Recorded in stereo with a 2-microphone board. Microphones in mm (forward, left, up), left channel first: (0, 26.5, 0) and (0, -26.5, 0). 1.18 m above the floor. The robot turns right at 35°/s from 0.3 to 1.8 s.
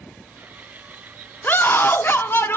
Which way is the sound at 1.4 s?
40° left (ahead or behind).